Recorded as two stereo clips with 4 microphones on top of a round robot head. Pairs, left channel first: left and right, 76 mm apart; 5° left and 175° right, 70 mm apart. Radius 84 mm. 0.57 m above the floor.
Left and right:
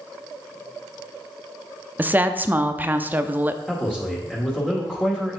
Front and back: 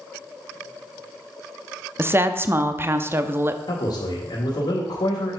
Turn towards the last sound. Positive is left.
turn(degrees=15)